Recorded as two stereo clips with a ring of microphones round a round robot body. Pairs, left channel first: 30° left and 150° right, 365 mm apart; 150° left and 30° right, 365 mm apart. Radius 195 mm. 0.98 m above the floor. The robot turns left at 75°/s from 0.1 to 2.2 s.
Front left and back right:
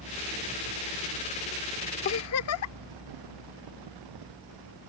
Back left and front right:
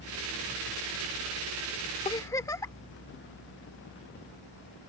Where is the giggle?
80° left; by 2.8 s 70° left.